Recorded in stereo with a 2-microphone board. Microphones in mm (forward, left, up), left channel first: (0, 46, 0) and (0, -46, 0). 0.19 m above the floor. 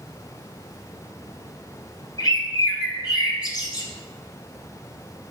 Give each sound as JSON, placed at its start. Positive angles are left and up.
{"t": 2.2, "sound": "a bird", "side_deg": 50, "distance_m": 1.4}